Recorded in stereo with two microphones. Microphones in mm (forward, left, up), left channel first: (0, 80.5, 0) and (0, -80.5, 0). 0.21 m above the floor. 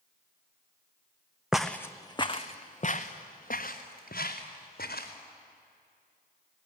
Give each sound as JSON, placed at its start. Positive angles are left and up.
{"t": 1.5, "sound": "footsteps", "side_deg": -5, "distance_m": 0.8}